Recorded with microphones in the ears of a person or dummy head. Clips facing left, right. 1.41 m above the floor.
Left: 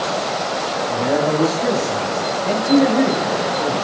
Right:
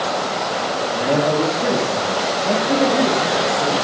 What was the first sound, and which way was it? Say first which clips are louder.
A man speaking: even; 15° right (ahead or behind).